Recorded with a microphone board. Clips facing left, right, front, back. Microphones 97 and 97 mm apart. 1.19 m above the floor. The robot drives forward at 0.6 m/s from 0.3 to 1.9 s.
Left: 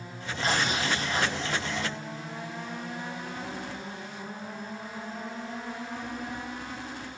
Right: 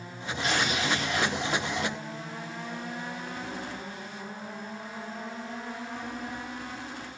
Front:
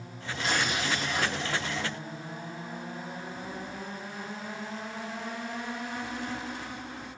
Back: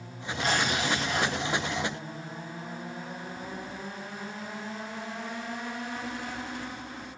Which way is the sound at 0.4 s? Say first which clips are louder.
Left 1 dB, back 2 dB; 140° left.